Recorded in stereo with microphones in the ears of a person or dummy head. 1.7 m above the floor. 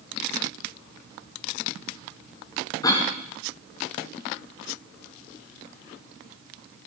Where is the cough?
25° left (ahead or behind), 1.4 m.